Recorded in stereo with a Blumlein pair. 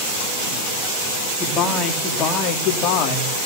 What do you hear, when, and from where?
1.4 s a man speaking: 20° left, 3 m; by 3.5 s 40° left, 3 m